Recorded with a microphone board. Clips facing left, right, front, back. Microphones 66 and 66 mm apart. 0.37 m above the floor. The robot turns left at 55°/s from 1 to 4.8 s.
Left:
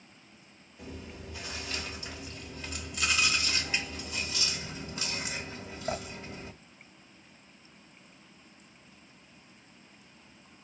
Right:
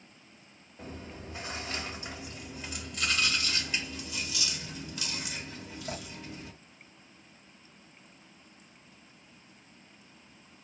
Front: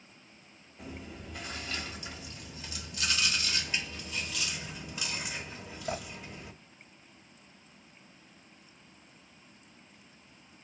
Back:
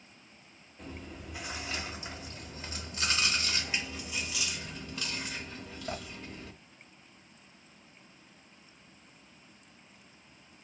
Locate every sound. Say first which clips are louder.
0.8 s chewing: right 1 dB, even; 80° right, 0.9 m; by 6.5 s 70° left, 0.9 m